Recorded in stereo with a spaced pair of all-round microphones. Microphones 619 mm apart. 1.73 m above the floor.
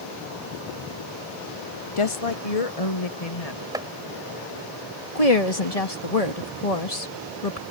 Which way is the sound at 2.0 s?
50° left (ahead or behind).